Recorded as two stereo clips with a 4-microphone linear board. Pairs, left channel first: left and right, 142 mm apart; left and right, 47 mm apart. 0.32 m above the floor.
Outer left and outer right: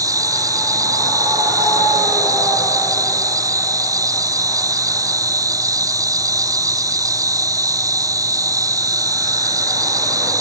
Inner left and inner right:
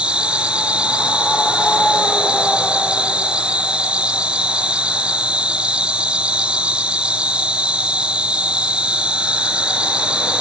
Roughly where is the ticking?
No ticking in this recording.